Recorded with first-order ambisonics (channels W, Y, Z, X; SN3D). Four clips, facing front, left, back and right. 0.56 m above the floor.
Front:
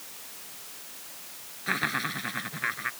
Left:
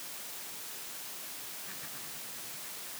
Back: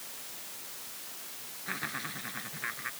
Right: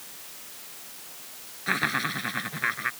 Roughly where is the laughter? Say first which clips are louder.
Right 20 dB, front 9 dB; ahead right.